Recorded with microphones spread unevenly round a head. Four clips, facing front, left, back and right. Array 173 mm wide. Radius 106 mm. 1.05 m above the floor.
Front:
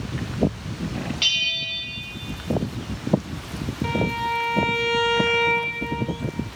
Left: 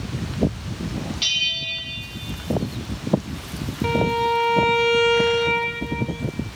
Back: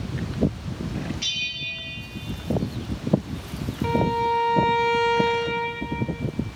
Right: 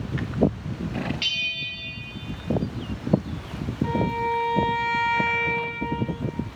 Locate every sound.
1.2 s a bell: 20° left, 1.6 m
3.8 s a violin: 120° left, 0.7 m